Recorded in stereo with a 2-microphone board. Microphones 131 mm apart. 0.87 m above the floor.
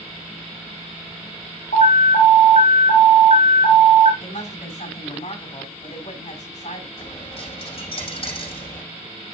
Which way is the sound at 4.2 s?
70° left (ahead or behind).